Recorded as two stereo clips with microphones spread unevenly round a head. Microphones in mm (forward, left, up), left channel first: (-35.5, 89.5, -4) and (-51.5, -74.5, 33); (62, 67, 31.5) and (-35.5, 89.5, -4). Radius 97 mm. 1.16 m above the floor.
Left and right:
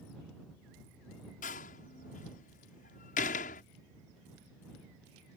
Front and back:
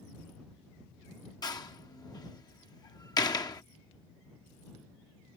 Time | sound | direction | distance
1.4 | a door slam | 35° left | ?